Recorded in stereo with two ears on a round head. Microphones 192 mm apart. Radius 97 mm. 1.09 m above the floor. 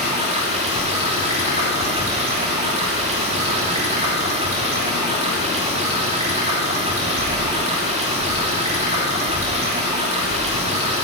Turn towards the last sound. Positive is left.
turn(degrees=-30)  # may be behind; listen again after turning